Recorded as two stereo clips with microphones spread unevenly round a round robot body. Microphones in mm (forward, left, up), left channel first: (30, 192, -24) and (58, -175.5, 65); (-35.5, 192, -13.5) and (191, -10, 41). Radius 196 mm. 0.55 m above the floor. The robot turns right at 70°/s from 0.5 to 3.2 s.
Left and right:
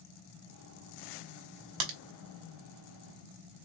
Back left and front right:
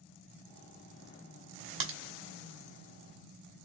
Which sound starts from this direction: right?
A crack, at 1.8 s.